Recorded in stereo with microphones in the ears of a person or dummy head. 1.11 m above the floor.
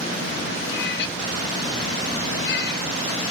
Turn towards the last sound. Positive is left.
turn(degrees=60)  # may be behind; listen again after turning